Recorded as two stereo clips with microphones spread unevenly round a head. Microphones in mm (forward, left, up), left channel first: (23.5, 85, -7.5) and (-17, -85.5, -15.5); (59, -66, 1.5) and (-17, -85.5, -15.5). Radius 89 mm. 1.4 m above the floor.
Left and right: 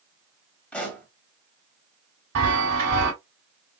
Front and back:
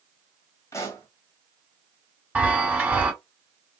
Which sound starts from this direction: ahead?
A pop, at 0.7 s.